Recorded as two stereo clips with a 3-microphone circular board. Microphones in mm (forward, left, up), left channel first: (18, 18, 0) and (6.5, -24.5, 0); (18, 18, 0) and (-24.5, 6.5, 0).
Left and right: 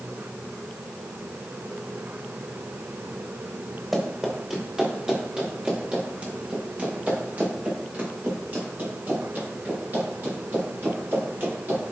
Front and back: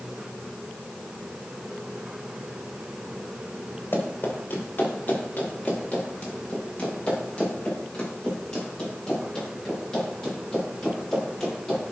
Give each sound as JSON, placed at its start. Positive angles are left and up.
{"t": 3.9, "sound": "running footsteps", "azimuth_deg": -25, "distance_m": 4.0}